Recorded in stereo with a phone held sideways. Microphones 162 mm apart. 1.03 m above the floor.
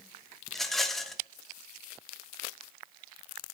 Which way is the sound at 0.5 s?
Centre (ahead or behind).